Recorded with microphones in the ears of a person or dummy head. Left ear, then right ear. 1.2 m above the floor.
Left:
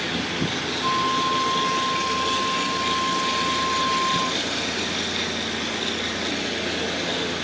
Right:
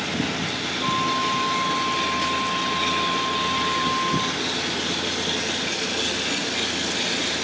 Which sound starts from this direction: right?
A flute, at 0.8 s.